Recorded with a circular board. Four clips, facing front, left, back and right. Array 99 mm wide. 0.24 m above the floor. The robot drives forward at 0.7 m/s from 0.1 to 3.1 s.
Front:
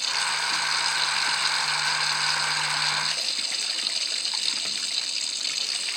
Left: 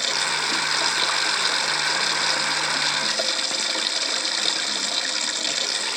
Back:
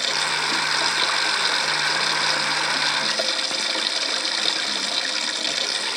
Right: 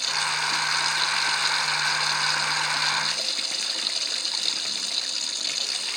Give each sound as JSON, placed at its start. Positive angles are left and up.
{"t": 0.0, "sound": "running water", "azimuth_deg": 140}